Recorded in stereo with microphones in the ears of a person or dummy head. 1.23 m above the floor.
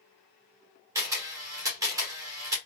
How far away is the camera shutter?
About 1.3 m.